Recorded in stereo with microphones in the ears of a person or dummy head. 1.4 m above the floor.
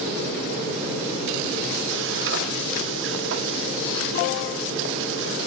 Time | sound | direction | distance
1.9 | frying | 65° right (ahead or behind) | 1.9 m